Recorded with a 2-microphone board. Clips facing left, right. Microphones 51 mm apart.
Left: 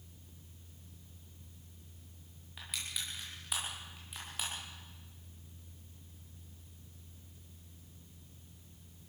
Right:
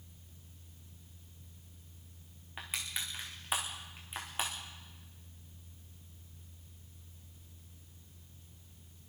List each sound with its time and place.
2.6 s crushing: 30° right (ahead or behind), 6 m